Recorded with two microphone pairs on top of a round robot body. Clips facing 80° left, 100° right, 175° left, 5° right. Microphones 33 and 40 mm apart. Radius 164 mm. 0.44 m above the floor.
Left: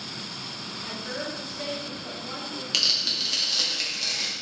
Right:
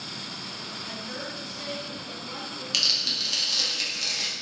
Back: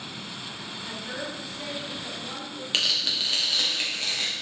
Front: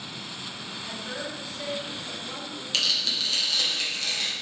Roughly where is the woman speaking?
Behind left.